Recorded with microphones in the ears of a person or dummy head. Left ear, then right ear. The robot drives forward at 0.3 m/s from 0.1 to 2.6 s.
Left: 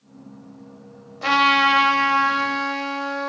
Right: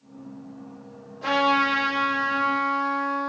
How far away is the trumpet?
About 0.9 m.